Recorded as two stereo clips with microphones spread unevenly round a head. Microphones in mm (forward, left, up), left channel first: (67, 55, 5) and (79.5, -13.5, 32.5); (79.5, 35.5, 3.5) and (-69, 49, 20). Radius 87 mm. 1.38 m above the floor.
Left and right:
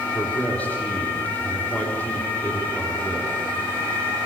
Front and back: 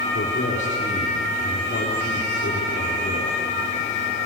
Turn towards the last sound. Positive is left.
turn(degrees=30)